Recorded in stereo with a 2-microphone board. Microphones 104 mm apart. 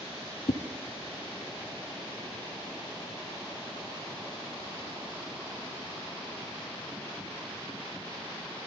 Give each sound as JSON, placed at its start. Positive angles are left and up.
{"t": 0.5, "sound": "a whoosh", "side_deg": 65, "distance_m": 0.7}